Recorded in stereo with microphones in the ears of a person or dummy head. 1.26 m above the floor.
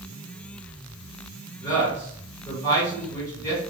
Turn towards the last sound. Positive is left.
turn(degrees=10)  # may be behind; listen again after turning